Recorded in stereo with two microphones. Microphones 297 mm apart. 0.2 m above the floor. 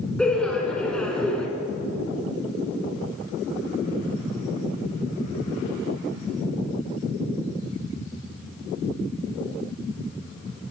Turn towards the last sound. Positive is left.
turn(degrees=5)  # may be behind; listen again after turning